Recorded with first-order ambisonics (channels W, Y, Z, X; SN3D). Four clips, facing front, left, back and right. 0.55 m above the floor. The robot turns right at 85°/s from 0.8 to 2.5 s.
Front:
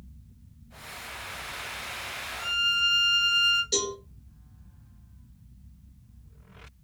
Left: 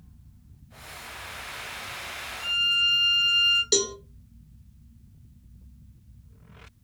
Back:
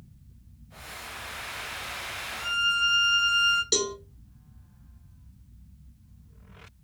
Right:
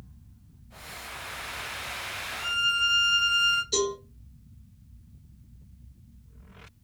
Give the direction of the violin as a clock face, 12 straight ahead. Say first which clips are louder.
Left 2 dB, even; 4 o'clock.